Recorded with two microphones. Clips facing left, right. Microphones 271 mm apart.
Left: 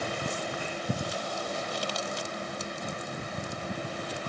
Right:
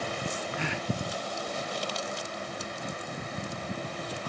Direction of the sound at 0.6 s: 80° right.